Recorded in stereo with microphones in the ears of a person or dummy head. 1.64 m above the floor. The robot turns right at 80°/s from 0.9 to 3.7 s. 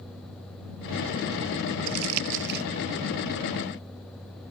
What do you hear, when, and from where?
1.9 s crumpling: 70° right (ahead or behind); by 2.6 s 45° right (ahead or behind)